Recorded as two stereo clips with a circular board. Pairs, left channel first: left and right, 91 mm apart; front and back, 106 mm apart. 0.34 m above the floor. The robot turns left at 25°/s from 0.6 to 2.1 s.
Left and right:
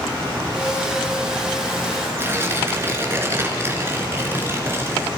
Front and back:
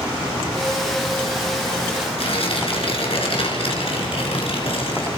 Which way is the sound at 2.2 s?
25° right.